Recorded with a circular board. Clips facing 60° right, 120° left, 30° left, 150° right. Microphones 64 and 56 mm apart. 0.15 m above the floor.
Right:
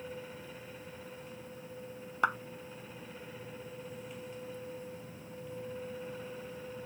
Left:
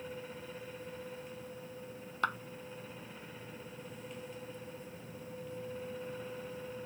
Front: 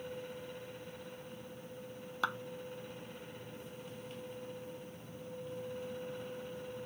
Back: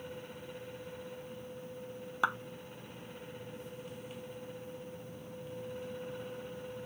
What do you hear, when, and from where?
2.2 s a clap: 105° right